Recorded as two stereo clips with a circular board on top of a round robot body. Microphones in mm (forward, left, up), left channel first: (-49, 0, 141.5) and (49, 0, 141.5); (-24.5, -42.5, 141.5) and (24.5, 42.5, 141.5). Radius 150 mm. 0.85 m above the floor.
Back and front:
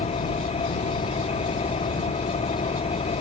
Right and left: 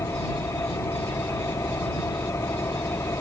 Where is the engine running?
175° left.